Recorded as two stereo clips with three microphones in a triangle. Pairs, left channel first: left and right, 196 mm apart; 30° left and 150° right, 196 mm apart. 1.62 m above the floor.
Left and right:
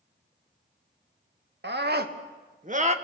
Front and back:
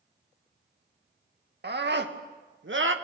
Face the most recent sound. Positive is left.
turn(degrees=-145)